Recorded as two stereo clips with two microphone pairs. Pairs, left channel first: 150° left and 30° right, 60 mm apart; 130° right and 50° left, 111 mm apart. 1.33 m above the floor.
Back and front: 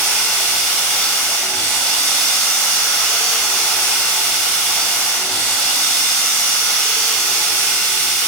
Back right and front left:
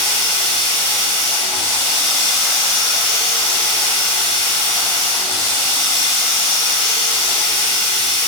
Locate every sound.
0.0 s running water: 155° right, 1.3 m